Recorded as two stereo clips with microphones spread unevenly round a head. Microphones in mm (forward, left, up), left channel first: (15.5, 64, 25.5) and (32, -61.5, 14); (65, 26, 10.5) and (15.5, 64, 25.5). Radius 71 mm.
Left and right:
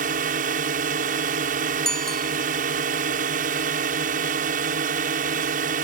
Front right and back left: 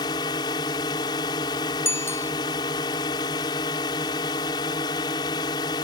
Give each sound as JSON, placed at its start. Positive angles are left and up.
{"t": 0.0, "sound": "a drone", "azimuth_deg": -65}
{"t": 1.9, "sound": "a bicycle bell", "azimuth_deg": 10}